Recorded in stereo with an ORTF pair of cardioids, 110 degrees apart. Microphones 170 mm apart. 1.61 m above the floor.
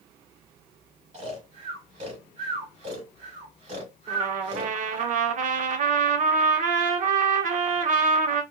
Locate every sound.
1.1 s snoring: 40° right, 2 m
4.1 s a trumpet: 55° right, 1.0 m